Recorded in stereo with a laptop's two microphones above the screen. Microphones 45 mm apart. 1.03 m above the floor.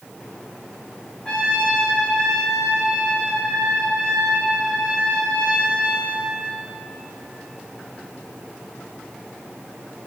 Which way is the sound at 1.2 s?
20° left (ahead or behind).